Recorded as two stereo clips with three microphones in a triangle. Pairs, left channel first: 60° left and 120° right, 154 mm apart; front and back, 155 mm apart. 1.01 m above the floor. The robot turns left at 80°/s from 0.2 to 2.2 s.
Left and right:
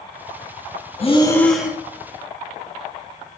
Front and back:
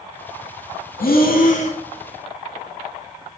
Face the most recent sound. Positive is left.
turn(degrees=-80)